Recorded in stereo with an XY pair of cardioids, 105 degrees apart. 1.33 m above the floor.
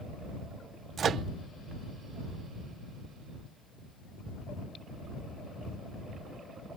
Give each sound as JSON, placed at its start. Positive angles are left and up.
{"t": 1.0, "sound": "a microwave", "azimuth_deg": -55}